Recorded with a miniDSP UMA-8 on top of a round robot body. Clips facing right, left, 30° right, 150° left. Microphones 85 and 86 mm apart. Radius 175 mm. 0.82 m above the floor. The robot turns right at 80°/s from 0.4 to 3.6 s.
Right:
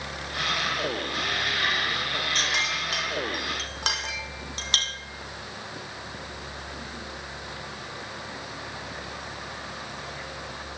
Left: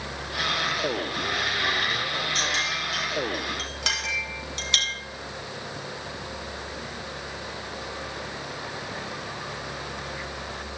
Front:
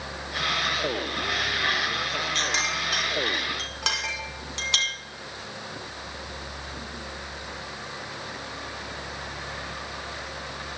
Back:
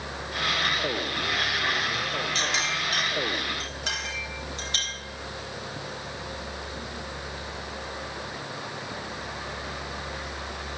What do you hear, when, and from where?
2.4 s a clink: 140° right, 1.6 m; by 5.0 s 40° right, 1.6 m